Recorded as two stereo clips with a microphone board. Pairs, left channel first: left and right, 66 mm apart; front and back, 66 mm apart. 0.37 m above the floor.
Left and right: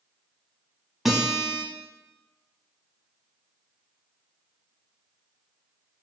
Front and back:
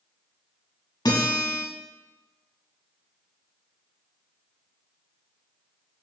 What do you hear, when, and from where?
1.1 s a guitar: straight ahead, 0.7 m